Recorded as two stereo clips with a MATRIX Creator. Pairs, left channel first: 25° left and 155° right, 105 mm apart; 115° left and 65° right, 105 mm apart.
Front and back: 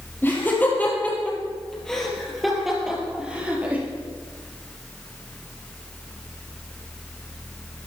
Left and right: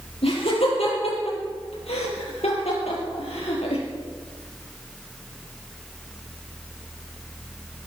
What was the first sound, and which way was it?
Laughter, 90° left.